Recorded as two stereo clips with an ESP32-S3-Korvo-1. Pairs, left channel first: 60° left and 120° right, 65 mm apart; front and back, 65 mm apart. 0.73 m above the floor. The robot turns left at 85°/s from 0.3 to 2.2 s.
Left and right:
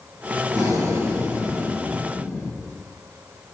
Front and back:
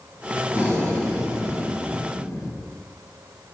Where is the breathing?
115° right, 4 m; by 2.5 s 100° left, 4 m.